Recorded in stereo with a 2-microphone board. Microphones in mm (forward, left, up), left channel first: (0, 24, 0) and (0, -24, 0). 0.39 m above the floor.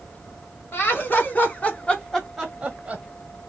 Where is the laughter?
45° left (ahead or behind), 1.9 m; by 3.0 s 25° right (ahead or behind), 1.3 m.